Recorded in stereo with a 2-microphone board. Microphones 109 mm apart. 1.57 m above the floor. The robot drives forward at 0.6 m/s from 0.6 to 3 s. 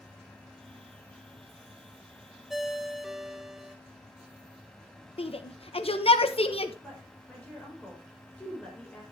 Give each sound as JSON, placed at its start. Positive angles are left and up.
{"t": 2.5, "sound": "a ringtone", "side_deg": -5, "distance_m": 0.7}
{"t": 5.2, "sound": "a shout", "side_deg": 60, "distance_m": 1.1}
{"t": 6.8, "sound": "a woman speaking", "side_deg": 10, "distance_m": 5.0}